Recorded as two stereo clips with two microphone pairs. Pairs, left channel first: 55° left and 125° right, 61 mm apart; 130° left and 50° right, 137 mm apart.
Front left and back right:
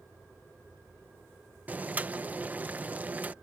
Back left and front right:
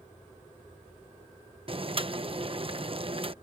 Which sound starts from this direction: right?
Boiling, at 1.7 s.